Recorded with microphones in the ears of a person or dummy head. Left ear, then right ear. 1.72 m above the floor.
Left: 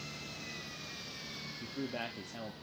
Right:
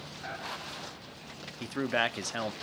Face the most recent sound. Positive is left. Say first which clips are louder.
# right 12 dB
turn(degrees=-55)  # may be behind; listen again after turning